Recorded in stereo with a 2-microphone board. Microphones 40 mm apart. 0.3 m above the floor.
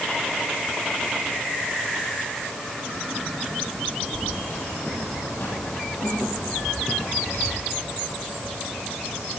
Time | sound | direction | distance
4.1 | keys jangling | 60° left (ahead or behind) | 8.5 m